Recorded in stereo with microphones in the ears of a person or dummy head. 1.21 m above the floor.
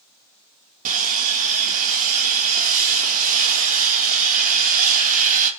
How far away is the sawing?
About 1.5 m.